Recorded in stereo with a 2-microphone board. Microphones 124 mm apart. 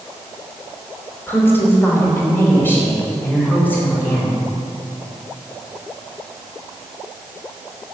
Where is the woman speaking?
20° left (ahead or behind), 3.5 m; by 4.4 s 15° left (ahead or behind), 5 m.